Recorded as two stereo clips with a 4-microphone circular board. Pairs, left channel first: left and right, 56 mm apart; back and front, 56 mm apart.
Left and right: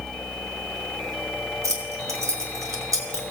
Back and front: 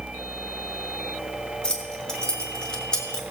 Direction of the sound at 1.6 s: 105° right.